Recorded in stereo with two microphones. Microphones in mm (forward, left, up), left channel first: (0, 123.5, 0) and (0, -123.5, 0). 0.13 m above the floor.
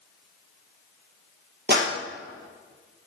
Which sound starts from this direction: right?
A clap, at 1.7 s.